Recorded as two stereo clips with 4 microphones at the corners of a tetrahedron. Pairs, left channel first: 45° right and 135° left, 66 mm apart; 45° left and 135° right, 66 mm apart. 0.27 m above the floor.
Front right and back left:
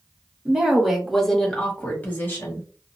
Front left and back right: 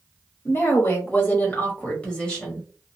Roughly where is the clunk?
I don't hear a clunk.